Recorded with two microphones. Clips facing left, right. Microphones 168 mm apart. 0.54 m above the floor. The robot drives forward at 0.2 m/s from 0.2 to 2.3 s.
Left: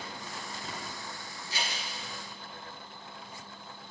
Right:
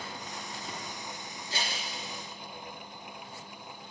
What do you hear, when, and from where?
1.5 s scissors: 55° right (ahead or behind), 3 m